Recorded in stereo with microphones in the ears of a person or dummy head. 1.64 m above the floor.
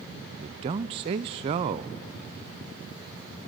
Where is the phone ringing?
No phone ringing in this recording.